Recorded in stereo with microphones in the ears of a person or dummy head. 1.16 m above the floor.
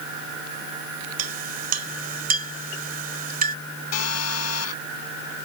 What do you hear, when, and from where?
1.2 s a clink: 45° right (ahead or behind)
3.9 s a phone buzzing: 85° left